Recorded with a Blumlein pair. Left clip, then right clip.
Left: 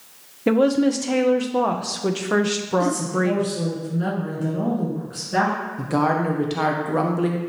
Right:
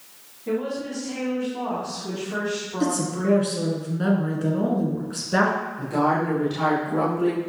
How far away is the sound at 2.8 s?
About 1.6 m.